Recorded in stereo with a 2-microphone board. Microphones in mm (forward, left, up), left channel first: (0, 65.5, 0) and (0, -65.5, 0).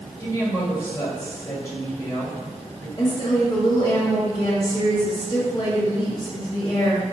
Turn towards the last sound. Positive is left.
turn(degrees=35)  # may be behind; listen again after turning